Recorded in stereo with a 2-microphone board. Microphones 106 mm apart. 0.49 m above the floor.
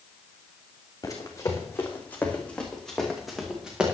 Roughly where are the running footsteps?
Left.